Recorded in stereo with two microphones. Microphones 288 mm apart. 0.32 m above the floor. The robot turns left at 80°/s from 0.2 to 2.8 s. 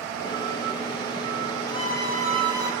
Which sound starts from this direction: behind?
A violin, at 1.7 s.